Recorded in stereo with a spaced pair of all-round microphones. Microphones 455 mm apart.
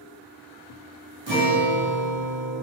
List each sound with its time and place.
1.3 s a guitar: 80° right, 2.5 m